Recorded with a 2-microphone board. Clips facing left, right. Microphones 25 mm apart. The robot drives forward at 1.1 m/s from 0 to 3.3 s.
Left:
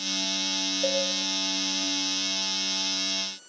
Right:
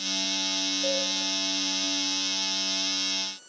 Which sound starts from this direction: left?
A cowbell, at 0.8 s.